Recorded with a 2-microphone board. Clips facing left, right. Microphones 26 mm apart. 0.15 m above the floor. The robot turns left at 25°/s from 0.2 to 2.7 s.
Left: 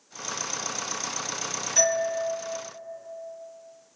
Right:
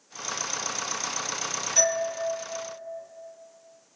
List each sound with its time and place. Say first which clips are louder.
1.8 s a doorbell: left 1 dB; 5° right (ahead or behind), 1.5 m; by 2.1 s centre (ahead or behind), 1.5 m